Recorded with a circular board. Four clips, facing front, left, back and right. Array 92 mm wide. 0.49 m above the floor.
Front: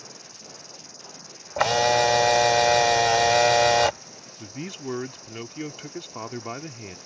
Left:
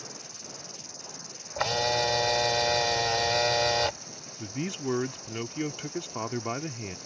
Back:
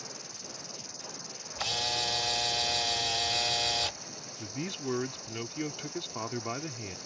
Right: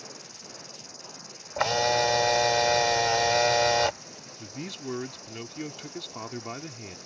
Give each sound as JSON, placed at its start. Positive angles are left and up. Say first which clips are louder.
{"t": 0.0, "sound": "an insect", "louder": "even, even", "azimuth_deg": 145}
{"t": 1.6, "sound": "a camera shutter", "louder": "right 3 dB, front 16 dB", "azimuth_deg": -15}
{"t": 4.4, "sound": "a man speaking", "louder": "left 5 dB, front 2 dB", "azimuth_deg": 70}